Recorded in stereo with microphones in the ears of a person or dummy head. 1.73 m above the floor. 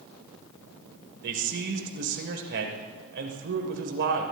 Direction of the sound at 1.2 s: 60° right (ahead or behind).